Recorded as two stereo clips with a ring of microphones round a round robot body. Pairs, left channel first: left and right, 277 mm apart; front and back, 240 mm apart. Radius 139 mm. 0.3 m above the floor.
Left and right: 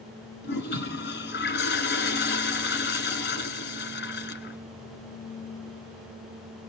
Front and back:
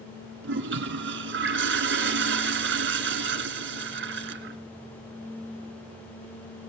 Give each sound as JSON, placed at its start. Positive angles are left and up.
{"t": 0.4, "sound": "a toilet flushing", "azimuth_deg": 140, "distance_m": 1.5}